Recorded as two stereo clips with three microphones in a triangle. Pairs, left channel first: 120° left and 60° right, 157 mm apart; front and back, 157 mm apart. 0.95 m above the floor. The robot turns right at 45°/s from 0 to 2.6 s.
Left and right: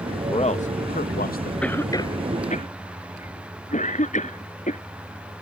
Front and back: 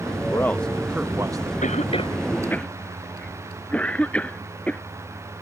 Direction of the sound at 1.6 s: 35° left.